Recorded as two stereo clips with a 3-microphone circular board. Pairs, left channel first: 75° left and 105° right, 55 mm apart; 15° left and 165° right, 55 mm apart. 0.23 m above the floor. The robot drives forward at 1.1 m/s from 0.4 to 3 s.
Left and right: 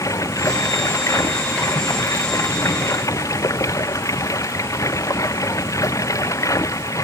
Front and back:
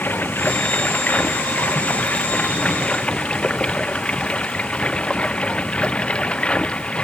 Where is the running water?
70° left; by 7.0 s 85° left.